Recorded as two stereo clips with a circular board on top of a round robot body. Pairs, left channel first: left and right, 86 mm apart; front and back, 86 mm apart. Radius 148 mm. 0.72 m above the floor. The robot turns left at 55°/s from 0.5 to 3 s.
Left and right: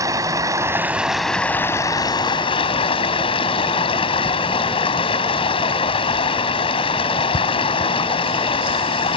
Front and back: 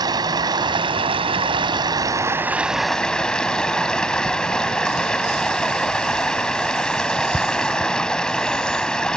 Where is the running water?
140° right; by 9.2 s 80° left.